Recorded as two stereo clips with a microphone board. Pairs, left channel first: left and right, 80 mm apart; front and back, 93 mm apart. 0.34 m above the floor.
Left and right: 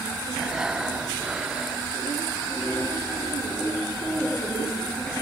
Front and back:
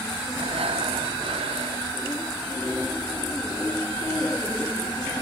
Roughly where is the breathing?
Behind.